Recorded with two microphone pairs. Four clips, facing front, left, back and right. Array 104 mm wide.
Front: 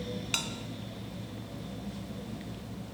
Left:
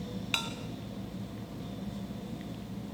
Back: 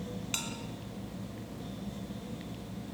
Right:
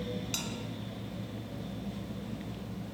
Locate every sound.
0.3 s a bell: 55° left, 2.5 m